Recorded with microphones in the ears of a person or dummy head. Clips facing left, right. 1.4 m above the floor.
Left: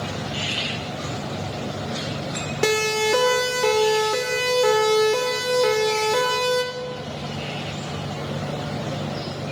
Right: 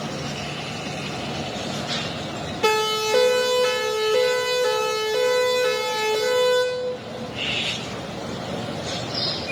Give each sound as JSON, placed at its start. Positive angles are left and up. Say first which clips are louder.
{"t": 2.6, "sound": "a siren", "louder": "left 1 dB", "side_deg": 60, "distance_m": 5.0}